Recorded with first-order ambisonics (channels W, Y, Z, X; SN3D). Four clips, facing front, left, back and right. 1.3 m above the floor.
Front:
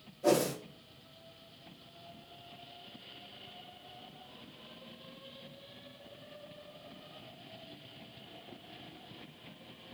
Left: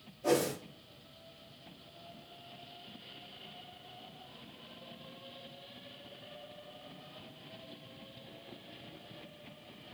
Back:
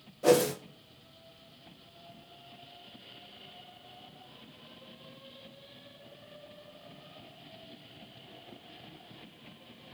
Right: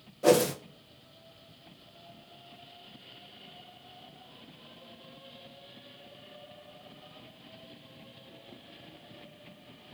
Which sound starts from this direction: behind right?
A whoosh, at 0.2 s.